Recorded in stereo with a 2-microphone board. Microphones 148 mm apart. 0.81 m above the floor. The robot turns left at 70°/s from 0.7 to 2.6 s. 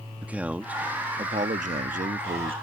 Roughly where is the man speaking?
Ahead.